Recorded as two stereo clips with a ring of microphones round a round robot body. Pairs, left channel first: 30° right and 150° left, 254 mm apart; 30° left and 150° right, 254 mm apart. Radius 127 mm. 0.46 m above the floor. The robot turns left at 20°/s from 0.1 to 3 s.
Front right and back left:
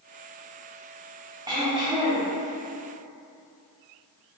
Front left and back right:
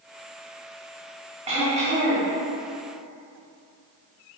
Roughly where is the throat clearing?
Behind right.